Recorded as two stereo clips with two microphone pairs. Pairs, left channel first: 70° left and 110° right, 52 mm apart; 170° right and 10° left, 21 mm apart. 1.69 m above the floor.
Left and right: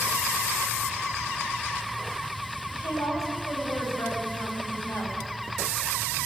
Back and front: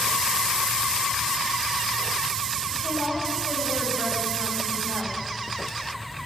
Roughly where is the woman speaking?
Left.